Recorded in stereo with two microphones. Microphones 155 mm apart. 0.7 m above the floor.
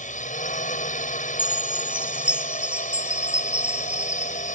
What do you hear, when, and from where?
0.0 s a drone: 55° left (ahead or behind)
1.4 s a chime: 5° right (ahead or behind)